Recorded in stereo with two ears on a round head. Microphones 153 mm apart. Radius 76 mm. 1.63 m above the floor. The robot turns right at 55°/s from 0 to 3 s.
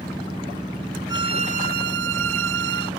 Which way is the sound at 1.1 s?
160° right.